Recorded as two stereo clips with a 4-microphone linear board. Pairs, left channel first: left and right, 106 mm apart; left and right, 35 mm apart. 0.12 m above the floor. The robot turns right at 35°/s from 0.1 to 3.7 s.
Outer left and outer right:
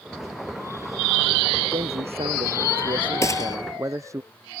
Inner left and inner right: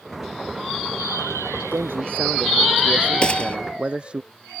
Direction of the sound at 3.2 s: 30° left (ahead or behind).